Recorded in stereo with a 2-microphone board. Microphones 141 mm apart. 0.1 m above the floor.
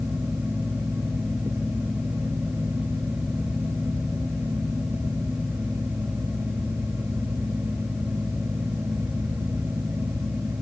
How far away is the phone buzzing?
I don't hear a phone buzzing.